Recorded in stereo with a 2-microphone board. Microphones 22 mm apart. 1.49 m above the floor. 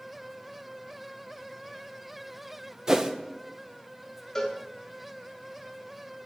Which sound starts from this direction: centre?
A cowbell, at 4.3 s.